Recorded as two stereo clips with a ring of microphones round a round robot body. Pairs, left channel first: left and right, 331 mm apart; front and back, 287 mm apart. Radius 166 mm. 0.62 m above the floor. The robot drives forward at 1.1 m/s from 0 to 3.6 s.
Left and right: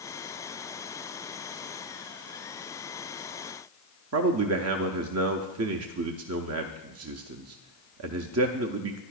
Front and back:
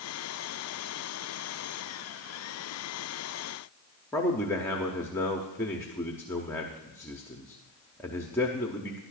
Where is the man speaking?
80° right, 0.7 m.